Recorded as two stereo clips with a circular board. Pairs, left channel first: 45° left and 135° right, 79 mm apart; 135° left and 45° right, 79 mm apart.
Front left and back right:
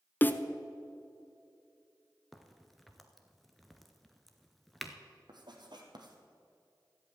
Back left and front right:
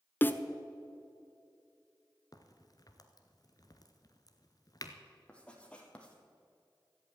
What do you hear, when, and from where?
0.2 s a snare drum: 90° left, 0.7 m
2.3 s a crack: 135° left, 1.1 m
5.3 s writing: 150° right, 1.9 m